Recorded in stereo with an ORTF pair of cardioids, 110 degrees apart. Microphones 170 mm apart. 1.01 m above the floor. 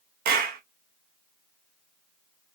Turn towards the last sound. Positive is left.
turn(degrees=-65)